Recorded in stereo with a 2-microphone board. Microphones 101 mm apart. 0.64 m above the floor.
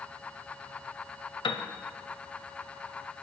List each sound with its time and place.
1.4 s a piano: 55° left (ahead or behind), 0.6 m